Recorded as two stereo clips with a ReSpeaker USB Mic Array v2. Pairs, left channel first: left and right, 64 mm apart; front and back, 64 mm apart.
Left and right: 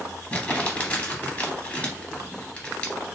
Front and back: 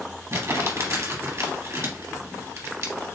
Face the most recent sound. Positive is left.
turn(degrees=150)